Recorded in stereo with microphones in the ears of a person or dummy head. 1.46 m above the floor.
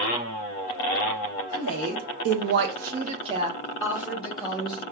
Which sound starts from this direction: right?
A woman speaking, at 1.5 s.